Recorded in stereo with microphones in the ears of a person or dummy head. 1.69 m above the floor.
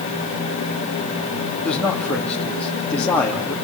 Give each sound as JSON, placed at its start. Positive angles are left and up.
{"t": 1.6, "sound": "a man speaking", "side_deg": 5, "distance_m": 3.0}